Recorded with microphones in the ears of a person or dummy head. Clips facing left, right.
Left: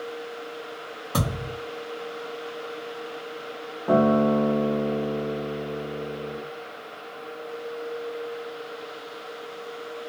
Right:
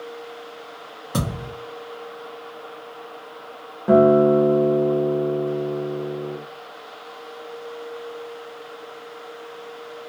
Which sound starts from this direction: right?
A guitar, at 3.9 s.